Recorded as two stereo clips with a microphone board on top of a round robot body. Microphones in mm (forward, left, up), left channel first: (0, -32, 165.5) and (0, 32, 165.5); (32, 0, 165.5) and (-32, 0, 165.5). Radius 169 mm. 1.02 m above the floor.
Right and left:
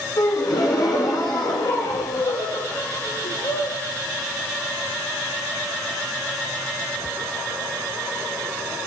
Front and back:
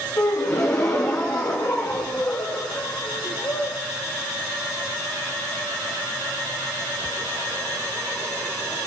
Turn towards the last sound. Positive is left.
turn(degrees=-55)